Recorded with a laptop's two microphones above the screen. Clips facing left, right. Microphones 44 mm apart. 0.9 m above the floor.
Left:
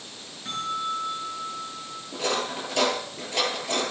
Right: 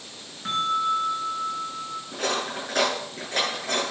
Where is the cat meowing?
No cat meowing in this recording.